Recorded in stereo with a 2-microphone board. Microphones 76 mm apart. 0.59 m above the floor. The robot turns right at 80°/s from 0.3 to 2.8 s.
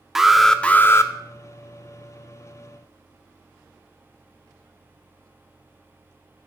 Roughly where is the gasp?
I don't hear a gasp.